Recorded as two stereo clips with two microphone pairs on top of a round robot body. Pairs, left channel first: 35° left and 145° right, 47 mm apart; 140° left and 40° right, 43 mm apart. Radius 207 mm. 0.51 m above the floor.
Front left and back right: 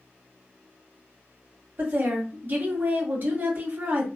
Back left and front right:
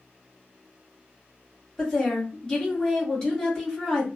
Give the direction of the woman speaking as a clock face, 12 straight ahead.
5 o'clock.